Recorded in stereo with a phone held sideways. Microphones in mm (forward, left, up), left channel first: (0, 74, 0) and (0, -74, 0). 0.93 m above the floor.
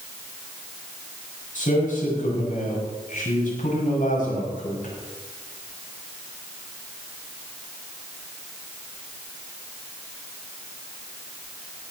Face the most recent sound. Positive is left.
turn(degrees=60)  # may be behind; listen again after turning